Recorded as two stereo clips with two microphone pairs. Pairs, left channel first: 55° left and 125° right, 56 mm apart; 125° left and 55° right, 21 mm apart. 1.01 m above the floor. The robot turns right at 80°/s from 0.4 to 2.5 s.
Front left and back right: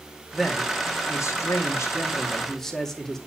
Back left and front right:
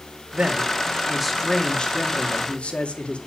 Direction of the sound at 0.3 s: 35° right.